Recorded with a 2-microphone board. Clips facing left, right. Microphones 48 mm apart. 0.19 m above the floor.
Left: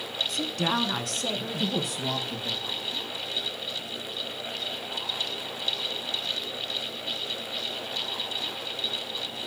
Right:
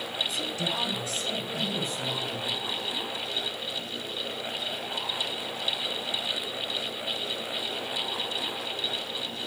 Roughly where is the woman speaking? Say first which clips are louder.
Left 3 dB; left.